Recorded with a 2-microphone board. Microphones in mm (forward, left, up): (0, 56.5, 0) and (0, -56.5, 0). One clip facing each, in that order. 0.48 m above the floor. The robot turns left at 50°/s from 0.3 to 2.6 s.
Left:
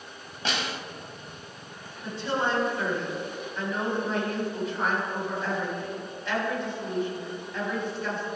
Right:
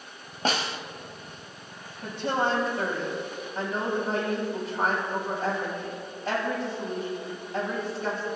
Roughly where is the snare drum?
Right.